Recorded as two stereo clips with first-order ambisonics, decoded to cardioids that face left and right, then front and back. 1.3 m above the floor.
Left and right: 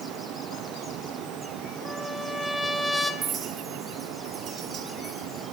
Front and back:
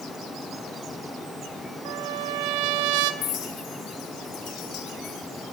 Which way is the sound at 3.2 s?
35° right.